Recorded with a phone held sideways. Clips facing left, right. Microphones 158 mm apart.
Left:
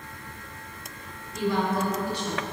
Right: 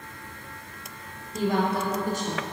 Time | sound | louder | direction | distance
1.3 | a woman speaking | right 1 dB | 35° right (ahead or behind) | 0.8 m